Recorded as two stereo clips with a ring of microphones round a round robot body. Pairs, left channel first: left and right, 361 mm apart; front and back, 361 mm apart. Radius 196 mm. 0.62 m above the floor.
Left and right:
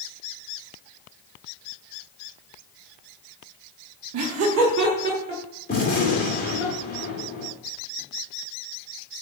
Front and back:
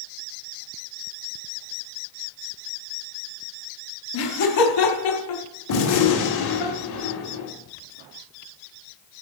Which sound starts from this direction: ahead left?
A gunshot, at 5.7 s.